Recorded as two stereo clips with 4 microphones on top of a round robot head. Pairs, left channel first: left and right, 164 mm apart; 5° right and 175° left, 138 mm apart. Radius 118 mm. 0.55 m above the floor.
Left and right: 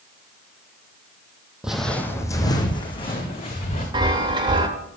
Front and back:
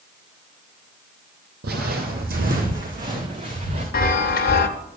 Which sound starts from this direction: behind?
Footsteps, at 1.6 s.